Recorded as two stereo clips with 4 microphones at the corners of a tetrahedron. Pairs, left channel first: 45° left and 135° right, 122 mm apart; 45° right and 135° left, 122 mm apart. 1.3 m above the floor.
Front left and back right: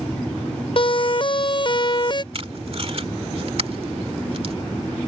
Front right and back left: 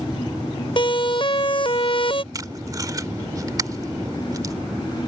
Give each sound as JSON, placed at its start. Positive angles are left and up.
{"t": 0.8, "sound": "a siren", "azimuth_deg": 0}
{"t": 2.3, "sound": "tape being pulled", "azimuth_deg": -165}